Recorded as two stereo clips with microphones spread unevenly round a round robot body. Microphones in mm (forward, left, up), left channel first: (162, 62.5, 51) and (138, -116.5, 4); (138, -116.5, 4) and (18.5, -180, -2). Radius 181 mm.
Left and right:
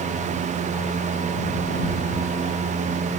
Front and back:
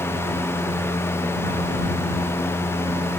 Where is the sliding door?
I don't hear a sliding door.